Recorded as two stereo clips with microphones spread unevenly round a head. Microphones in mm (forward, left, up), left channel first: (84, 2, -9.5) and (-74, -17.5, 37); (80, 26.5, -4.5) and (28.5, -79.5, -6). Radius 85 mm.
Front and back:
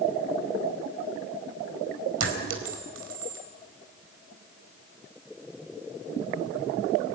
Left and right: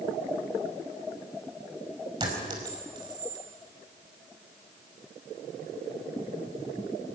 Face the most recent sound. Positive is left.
turn(degrees=180)